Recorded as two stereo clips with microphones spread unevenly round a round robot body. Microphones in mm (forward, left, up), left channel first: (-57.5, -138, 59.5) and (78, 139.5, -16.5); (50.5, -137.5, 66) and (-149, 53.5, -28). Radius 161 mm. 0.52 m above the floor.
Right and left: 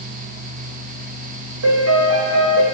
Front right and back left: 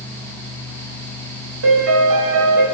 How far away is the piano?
About 1.6 m.